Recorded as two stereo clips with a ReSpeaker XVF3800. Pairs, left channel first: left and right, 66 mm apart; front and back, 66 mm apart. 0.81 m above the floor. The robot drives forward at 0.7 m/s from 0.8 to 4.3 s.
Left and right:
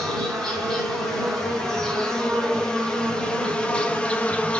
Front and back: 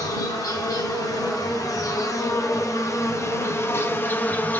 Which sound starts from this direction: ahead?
An insect, at 0.0 s.